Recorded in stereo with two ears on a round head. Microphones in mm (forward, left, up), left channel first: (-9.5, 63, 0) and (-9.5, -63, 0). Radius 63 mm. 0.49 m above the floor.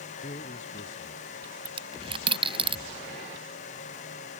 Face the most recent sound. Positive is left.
turn(degrees=-40)  # may be behind; listen again after turning